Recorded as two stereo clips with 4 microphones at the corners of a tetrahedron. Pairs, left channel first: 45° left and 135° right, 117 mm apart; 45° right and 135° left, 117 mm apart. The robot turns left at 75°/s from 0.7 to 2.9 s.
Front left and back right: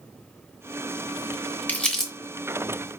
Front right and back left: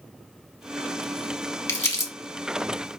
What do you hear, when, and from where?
1.7 s crumpling: 15° right, 1.2 m; by 2.1 s 45° right, 1.2 m